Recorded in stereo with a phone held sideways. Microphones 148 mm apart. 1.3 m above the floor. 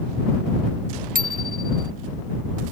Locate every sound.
1.1 s a bicycle bell: 75° right (ahead or behind)